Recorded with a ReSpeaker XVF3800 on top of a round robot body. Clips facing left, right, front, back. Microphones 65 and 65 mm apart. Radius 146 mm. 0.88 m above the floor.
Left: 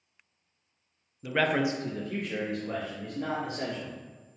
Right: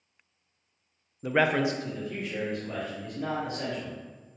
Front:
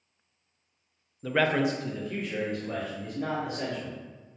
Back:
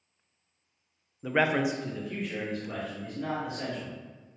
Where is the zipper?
I don't hear a zipper.